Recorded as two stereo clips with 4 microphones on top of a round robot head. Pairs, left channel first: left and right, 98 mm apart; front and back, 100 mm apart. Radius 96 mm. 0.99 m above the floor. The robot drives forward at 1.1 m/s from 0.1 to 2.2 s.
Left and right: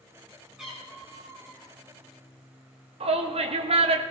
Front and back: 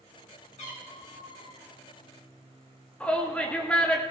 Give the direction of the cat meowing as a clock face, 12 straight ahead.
12 o'clock.